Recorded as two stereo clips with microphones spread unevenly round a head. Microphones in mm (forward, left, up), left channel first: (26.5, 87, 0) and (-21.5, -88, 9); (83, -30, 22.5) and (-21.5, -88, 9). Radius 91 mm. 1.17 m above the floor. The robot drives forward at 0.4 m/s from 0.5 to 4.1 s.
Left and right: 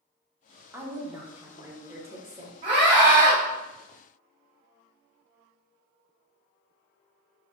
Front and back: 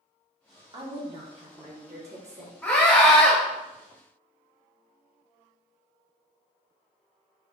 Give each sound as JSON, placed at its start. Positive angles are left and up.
{"t": 0.7, "sound": "a woman speaking", "azimuth_deg": 175, "distance_m": 0.8}
{"t": 2.6, "sound": "a scream", "azimuth_deg": -50, "distance_m": 2.0}